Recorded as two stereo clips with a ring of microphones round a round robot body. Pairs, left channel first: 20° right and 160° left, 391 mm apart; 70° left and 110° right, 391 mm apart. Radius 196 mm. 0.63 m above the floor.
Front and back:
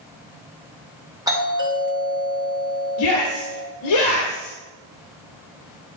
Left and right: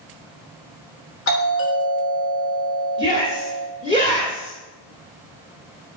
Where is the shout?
5° right, 1.4 m.